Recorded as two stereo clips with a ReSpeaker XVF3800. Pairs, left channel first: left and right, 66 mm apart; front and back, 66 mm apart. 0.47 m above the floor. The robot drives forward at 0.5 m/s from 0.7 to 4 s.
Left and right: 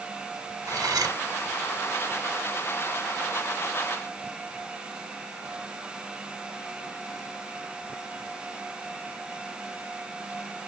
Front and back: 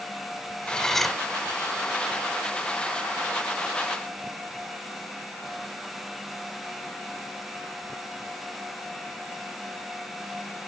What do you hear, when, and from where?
0.7 s cutlery clinking: 75° right, 1.0 m; by 1.2 s 90° right, 0.9 m